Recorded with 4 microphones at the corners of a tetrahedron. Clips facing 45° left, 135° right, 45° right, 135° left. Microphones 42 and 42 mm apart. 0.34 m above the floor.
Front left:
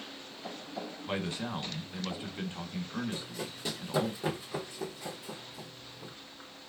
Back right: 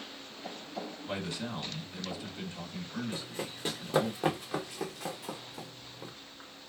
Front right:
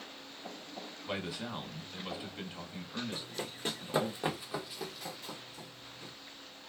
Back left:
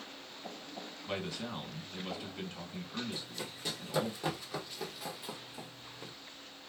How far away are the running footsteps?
About 1.1 m.